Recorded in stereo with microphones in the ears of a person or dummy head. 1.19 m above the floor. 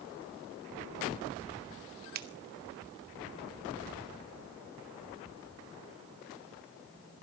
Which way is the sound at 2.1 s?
50° right (ahead or behind).